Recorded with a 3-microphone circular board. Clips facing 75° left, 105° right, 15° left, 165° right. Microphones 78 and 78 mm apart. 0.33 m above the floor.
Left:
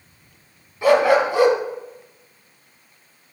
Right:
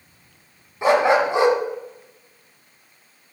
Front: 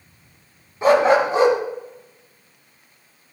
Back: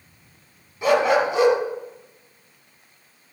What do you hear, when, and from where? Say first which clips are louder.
0.8 s a dog barking: left 1 dB, front 3 dB; 40° right, 1.3 m